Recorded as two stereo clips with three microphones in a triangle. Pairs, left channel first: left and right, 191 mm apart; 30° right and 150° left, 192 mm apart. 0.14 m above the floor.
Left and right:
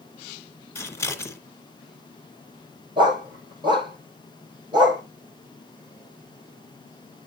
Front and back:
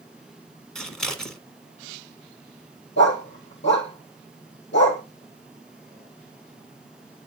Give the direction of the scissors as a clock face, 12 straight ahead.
10 o'clock.